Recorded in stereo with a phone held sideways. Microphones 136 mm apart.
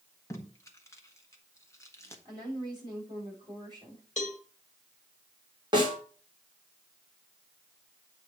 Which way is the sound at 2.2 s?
35° right (ahead or behind).